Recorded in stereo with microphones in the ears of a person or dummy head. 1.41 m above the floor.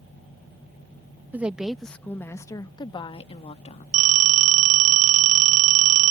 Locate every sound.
1.3 s a woman speaking: 5° right (ahead or behind); by 3.8 s 45° left (ahead or behind)
3.9 s a phone ringing: 45° right (ahead or behind)